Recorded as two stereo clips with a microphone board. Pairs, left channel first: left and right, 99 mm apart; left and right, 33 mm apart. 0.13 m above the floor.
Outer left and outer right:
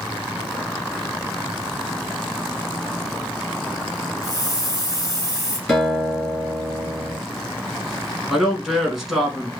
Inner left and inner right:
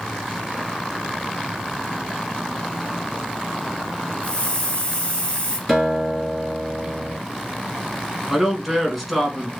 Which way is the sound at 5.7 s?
5° left (ahead or behind).